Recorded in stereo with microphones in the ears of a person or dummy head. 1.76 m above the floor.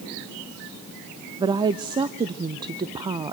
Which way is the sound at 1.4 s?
10° right (ahead or behind).